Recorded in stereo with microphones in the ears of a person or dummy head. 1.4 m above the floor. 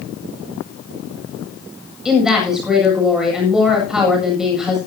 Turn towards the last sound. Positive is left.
turn(degrees=-5)  # may be behind; listen again after turning